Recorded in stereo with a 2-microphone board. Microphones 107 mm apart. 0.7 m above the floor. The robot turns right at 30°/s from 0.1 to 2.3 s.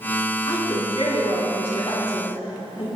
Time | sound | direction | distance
0.5 | a woman speaking | 50° left | 5.5 m